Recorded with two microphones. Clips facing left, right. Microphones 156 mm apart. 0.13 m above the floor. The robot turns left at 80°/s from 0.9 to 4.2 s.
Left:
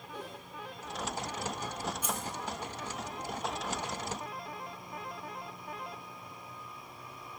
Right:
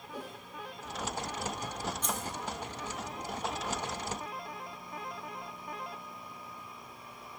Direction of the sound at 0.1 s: 10° right (ahead or behind).